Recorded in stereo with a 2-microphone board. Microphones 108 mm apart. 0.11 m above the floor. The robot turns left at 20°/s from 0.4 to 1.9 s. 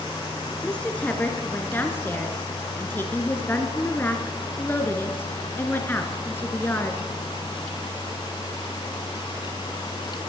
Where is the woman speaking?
10° left (ahead or behind), 1.2 m; by 7.0 s 20° left (ahead or behind), 1.2 m.